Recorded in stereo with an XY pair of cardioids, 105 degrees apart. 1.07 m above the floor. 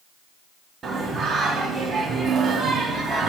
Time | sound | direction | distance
0.8 | singing | 40° right | 2 m